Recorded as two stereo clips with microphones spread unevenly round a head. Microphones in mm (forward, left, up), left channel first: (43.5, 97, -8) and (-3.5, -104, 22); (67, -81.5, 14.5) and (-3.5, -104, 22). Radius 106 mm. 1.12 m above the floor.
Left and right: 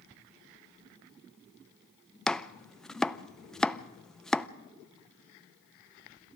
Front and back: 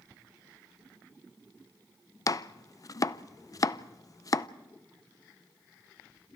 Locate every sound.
2.3 s chopping: 5° right, 0.5 m